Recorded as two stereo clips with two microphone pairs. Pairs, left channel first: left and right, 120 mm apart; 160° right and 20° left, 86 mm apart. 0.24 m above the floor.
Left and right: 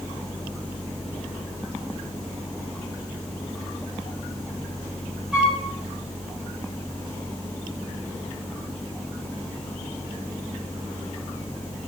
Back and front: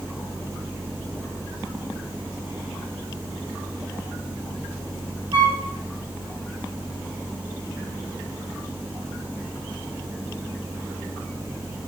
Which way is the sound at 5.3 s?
5° right.